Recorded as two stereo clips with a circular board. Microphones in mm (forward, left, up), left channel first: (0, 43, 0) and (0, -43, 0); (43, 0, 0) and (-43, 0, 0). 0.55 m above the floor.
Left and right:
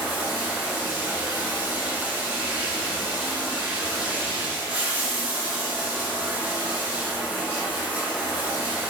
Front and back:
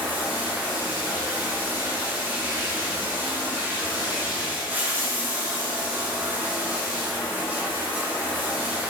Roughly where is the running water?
Behind right.